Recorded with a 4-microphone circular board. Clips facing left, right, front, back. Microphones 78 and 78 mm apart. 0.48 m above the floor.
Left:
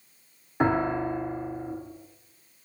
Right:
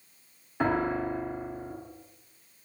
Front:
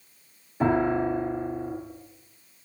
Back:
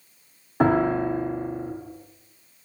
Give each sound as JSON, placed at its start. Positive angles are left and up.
{"t": 0.6, "sound": "a piano", "azimuth_deg": 165, "distance_m": 2.5}